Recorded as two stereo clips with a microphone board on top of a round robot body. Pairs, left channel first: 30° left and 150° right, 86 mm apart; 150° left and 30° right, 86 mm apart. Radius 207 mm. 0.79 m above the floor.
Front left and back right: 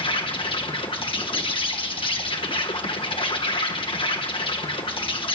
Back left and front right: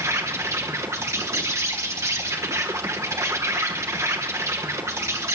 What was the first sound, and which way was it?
An insect, 25° left.